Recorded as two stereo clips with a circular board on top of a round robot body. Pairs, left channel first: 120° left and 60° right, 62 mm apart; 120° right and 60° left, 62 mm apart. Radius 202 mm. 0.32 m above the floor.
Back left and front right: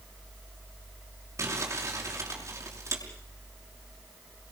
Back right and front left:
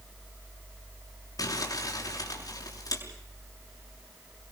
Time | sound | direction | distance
1.4 | crumpling | 105° right | 6 m